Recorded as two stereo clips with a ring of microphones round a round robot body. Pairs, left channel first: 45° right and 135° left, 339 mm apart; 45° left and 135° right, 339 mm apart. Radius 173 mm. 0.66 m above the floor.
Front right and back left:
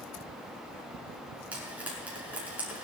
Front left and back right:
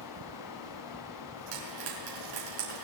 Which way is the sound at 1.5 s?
140° right.